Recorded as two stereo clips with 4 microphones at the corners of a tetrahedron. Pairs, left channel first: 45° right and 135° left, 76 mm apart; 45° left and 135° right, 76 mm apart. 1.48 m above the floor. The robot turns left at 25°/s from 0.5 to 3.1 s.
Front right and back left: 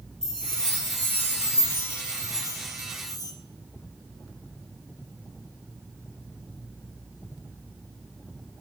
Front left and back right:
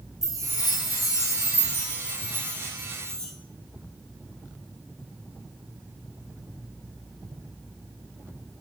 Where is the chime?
35° left, 1.0 m; by 3.3 s 30° right, 1.0 m.